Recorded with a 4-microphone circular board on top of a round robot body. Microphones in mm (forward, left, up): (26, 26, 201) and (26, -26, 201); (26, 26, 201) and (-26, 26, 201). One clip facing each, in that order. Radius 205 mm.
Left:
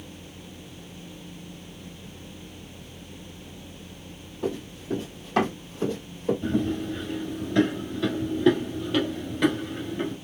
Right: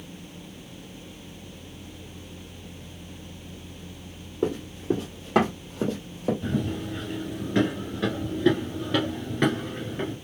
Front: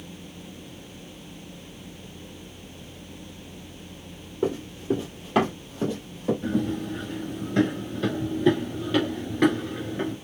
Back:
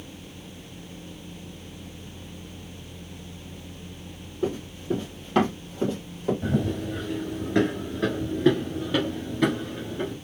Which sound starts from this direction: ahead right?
Running footsteps, at 4.4 s.